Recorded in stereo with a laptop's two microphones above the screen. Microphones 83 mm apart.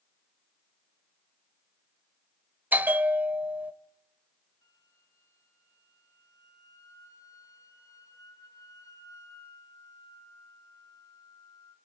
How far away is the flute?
About 9 m.